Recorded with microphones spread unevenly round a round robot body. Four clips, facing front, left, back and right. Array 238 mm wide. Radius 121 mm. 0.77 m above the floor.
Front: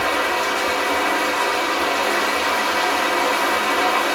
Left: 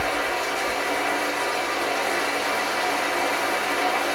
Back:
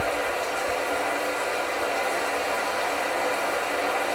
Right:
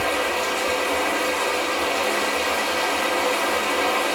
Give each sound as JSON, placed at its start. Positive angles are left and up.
{"t": 0.0, "sound": "running water", "azimuth_deg": -20, "distance_m": 1.2}